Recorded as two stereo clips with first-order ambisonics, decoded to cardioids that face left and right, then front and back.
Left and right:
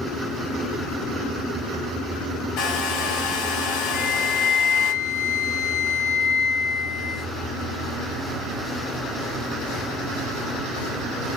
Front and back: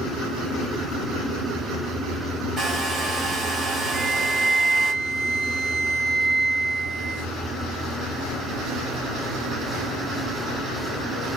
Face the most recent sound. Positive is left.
turn(degrees=110)